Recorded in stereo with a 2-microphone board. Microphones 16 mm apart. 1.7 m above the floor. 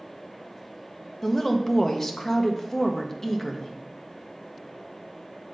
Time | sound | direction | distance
1.2 | a woman speaking | 25° left (ahead or behind) | 0.8 m